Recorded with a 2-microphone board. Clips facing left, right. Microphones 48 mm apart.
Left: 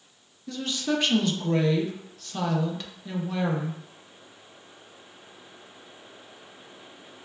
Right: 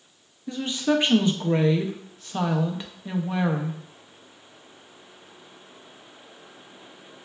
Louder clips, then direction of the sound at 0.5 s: Right 4 dB; 20° right (ahead or behind).